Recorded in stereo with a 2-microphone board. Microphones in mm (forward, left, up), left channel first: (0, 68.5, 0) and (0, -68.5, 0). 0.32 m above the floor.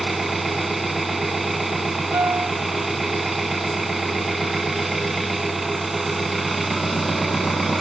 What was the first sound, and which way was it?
An engine running, centre (ahead or behind).